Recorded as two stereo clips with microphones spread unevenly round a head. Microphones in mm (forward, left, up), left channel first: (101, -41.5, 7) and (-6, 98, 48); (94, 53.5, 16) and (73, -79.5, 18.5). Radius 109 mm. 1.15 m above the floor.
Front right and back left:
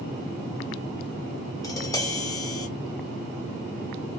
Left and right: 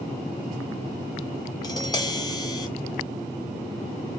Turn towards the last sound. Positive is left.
turn(degrees=20)